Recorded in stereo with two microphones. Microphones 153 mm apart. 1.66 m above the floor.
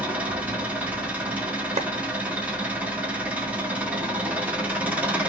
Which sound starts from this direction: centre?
An engine running, at 0.0 s.